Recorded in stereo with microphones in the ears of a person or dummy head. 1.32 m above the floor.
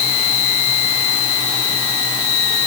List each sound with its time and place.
Only background noise.